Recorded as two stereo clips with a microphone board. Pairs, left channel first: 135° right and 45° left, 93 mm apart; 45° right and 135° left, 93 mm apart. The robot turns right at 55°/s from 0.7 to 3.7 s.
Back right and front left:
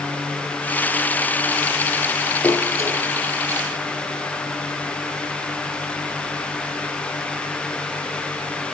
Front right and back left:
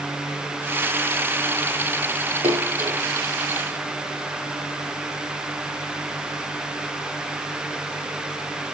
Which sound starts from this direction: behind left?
A splash, at 2.4 s.